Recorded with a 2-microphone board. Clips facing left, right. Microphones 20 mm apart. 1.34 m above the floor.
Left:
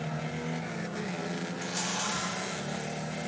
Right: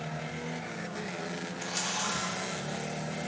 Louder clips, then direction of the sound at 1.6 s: Right 1 dB; 35° right (ahead or behind).